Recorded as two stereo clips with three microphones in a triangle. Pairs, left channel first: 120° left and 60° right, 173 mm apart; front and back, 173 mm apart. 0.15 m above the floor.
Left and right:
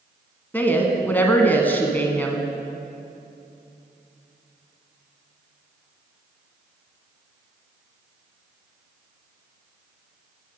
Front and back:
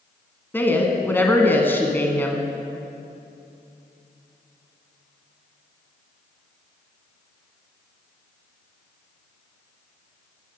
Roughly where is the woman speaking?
Ahead left.